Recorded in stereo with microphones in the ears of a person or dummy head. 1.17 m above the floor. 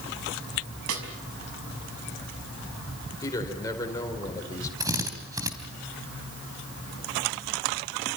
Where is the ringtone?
No ringtone in this recording.